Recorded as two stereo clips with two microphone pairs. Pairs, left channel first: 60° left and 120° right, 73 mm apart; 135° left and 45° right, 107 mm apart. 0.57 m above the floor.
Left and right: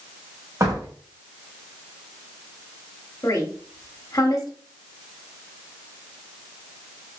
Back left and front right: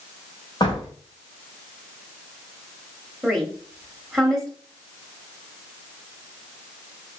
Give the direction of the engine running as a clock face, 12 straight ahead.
No engine running in this recording.